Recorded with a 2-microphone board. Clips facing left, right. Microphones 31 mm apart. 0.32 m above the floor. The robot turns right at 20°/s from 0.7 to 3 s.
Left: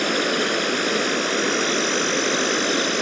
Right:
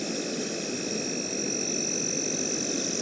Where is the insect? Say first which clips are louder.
Left 11 dB; 70° left; by 3.0 s 115° left.